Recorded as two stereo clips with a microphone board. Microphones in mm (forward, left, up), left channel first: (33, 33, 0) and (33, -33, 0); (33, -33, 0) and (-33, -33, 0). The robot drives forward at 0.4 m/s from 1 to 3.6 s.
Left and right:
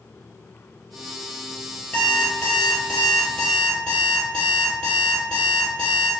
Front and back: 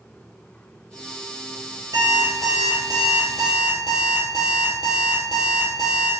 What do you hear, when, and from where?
1.9 s an alarm clock: 165° left, 1.7 m; by 6.1 s 170° left, 2.5 m